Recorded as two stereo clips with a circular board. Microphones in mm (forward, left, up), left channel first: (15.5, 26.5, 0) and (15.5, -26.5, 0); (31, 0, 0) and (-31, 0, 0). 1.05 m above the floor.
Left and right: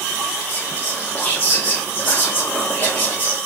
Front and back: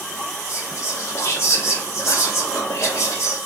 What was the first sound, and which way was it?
Whispering, 40° left.